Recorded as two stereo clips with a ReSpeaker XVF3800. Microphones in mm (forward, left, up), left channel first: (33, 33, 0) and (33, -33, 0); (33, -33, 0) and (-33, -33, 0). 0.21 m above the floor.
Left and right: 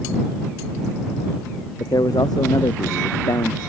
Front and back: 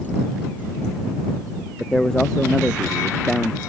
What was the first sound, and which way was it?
A man speaking, 80° left.